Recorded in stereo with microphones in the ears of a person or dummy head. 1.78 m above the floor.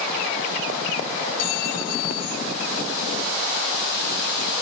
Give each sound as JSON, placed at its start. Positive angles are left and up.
{"t": 1.4, "sound": "a clink", "side_deg": 55}